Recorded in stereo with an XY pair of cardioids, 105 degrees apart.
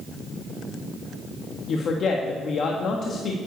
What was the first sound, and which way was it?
A woman speaking, 55° left.